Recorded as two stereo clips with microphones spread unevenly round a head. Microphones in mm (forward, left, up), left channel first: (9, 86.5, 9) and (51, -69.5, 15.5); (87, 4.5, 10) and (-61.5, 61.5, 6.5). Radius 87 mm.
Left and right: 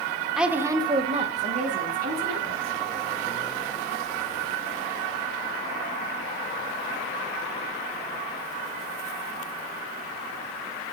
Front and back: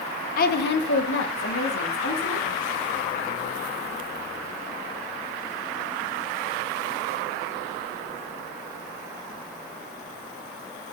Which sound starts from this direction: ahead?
A woman speaking, at 0.4 s.